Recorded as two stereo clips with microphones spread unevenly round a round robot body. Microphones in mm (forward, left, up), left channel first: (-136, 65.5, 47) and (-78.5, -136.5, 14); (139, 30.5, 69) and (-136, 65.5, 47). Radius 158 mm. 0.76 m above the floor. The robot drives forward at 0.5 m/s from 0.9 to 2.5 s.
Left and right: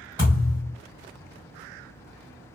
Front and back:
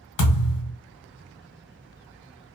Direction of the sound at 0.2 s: 10° left.